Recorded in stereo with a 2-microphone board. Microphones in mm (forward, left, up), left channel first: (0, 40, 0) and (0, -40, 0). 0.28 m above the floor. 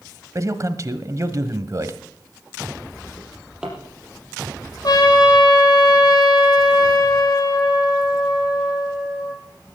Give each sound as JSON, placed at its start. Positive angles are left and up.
{"t": 0.3, "sound": "a man speaking", "side_deg": -45, "distance_m": 1.2}
{"t": 3.2, "sound": "a drawer", "side_deg": -5, "distance_m": 4.5}
{"t": 4.8, "sound": "a trumpet", "side_deg": 55, "distance_m": 4.5}